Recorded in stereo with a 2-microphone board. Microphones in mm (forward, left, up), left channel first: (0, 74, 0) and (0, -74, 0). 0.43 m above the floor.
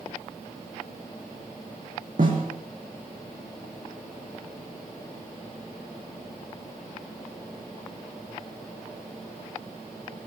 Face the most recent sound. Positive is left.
turn(degrees=-65)  # may be behind; listen again after turning